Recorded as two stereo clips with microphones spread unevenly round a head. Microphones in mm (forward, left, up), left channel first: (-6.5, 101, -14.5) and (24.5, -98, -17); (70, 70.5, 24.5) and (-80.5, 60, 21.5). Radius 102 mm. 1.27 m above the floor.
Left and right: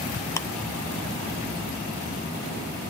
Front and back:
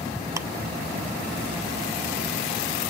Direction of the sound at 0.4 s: 145° left.